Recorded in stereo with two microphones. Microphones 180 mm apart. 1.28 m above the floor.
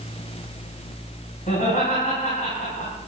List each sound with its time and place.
1.5 s laughter: 45° left (ahead or behind), 8.5 m